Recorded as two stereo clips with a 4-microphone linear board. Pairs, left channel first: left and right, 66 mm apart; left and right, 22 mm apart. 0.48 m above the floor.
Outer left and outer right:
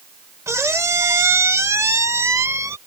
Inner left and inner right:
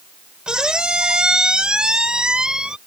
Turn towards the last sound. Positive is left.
turn(degrees=-45)  # may be behind; listen again after turning